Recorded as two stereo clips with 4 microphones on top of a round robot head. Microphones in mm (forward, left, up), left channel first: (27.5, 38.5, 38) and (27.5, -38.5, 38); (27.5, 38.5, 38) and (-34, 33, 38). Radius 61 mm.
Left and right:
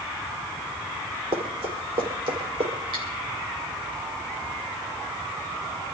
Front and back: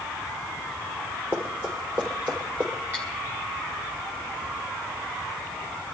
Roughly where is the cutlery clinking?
Right.